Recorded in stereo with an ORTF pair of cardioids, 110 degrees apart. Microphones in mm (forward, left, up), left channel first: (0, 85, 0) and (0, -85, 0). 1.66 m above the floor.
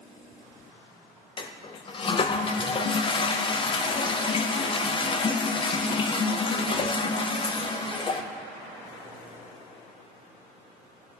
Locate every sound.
1.4 s a toilet flushing: 30° left, 0.7 m